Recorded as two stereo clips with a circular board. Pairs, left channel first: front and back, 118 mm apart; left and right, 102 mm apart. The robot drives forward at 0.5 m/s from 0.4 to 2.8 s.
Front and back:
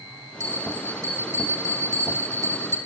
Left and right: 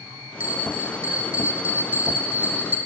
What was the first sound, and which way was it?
A bell, 15° right.